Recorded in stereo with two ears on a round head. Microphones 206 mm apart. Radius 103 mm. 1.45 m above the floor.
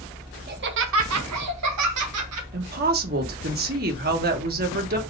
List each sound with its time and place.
0.5 s laughter: 45° right (ahead or behind), 1.5 m; by 2.4 s 65° right (ahead or behind), 2.5 m
2.5 s a woman speaking: 45° right (ahead or behind), 1.5 m